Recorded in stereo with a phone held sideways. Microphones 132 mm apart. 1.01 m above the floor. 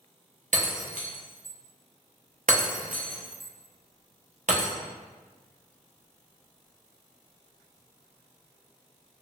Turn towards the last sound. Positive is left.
turn(degrees=-75)  # may be behind; listen again after turning